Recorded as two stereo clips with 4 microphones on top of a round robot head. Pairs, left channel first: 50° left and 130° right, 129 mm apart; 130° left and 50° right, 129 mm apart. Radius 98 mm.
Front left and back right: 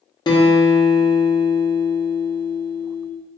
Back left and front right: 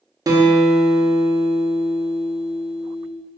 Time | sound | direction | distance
0.3 | a guitar | 5° left | 0.7 m